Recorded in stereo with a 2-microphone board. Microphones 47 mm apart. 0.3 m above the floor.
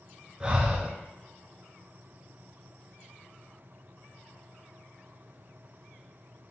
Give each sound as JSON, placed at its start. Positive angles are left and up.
{"t": 0.4, "sound": "breathing", "side_deg": -25, "distance_m": 0.6}